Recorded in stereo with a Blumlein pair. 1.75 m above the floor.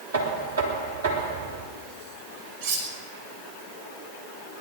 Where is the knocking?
70° right, 3 m.